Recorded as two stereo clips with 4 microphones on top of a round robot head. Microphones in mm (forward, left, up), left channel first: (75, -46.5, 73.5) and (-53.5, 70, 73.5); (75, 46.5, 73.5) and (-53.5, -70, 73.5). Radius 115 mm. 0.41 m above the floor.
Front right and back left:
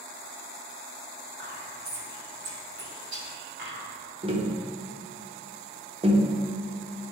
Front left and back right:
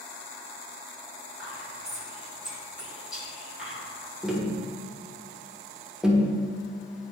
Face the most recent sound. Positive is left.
turn(degrees=140)